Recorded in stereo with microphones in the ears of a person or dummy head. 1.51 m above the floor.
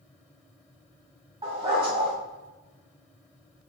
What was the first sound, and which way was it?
A dog barking, 25° right (ahead or behind).